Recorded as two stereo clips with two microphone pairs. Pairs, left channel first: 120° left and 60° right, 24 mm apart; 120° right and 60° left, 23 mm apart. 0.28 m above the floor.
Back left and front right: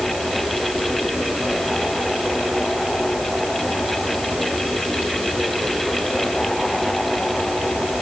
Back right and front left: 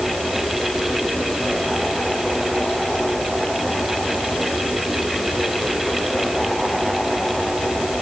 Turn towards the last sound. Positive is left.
No sound to turn to.